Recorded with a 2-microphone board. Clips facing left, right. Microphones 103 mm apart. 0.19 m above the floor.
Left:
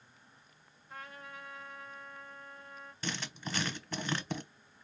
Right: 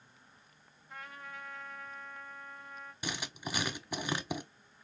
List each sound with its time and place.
0.9 s a trumpet: centre (ahead or behind), 2.5 m
3.0 s writing: 10° right (ahead or behind), 0.8 m